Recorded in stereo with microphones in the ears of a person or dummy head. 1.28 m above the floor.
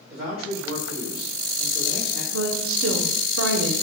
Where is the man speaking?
30° right (ahead or behind), 1.7 m.